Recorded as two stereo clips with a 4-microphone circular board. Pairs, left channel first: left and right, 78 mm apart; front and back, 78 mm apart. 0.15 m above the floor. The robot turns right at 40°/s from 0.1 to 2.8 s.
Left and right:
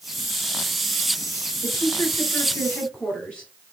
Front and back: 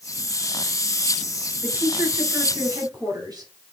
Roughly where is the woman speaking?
Behind left.